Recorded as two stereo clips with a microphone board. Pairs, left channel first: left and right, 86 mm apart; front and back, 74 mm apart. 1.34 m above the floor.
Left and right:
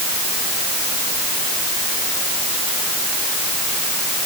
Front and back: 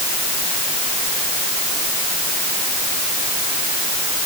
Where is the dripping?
I don't hear dripping.